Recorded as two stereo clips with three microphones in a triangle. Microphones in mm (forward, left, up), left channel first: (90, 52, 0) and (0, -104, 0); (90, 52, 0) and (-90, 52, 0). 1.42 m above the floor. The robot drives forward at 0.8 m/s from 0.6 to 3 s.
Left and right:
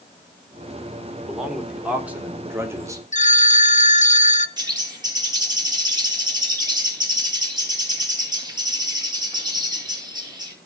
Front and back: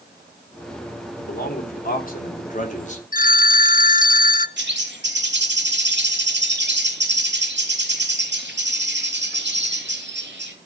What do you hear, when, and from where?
1.2 s a man speaking: 30° right, 4 m; by 3.0 s 50° right, 2.5 m
3.1 s a phone ringing: 25° left, 0.9 m
4.6 s a bird: 175° left, 2.5 m